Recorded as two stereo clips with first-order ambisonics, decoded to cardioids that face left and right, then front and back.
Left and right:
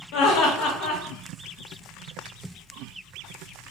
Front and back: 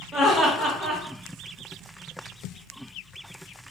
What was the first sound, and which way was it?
Laughter, 85° left.